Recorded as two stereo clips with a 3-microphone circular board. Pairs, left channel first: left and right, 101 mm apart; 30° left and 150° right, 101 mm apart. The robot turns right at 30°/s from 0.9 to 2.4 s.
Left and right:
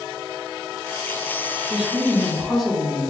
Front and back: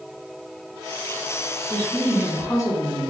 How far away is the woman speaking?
About 0.9 m.